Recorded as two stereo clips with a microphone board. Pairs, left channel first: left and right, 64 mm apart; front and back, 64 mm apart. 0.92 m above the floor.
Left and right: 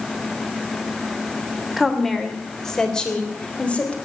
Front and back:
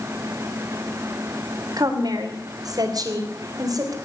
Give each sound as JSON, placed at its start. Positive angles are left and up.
{"t": 1.8, "sound": "a woman speaking", "azimuth_deg": 180, "distance_m": 3.0}